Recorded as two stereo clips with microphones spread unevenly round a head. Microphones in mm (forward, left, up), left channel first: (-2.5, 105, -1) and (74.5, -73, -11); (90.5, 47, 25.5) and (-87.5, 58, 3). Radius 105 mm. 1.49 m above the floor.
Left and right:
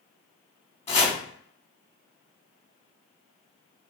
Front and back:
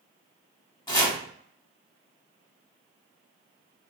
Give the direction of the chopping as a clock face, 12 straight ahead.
10 o'clock.